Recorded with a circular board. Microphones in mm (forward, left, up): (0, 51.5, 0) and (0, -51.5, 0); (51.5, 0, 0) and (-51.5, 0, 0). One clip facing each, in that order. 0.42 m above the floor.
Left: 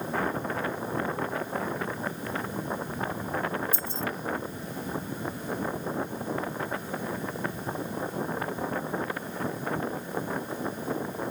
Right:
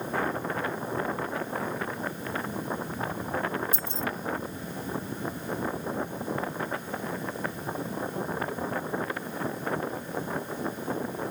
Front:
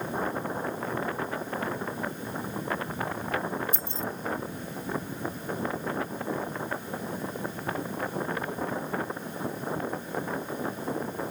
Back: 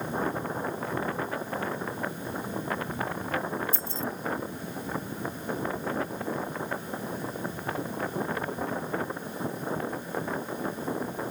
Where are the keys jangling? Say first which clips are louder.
Even, back 1 dB; 135° left.